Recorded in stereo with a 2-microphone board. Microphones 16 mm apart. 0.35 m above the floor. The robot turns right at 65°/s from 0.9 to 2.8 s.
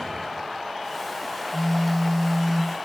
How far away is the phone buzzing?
About 9 m.